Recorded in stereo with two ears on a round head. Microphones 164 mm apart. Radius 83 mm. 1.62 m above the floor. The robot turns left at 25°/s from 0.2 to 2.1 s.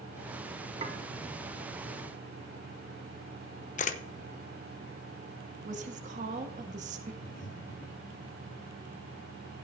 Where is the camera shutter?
40° left (ahead or behind), 0.9 m.